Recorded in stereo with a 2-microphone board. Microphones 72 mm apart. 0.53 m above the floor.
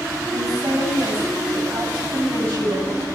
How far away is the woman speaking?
About 4 m.